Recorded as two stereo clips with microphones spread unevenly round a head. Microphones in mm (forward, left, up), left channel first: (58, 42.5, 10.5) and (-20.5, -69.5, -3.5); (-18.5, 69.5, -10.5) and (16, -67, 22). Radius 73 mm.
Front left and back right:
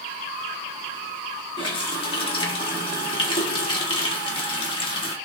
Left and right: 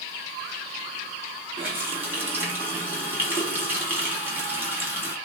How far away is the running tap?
About 1.4 m.